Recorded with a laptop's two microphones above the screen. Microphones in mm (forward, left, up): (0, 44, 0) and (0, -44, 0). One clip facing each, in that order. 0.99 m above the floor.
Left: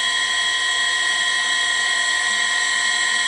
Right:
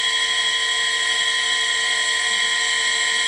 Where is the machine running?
35° left (ahead or behind), 1.1 m.